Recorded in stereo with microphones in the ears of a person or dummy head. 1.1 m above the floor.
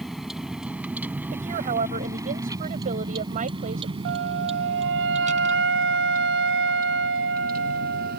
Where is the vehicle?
Centre (ahead or behind); by 8.2 s 50° right (ahead or behind).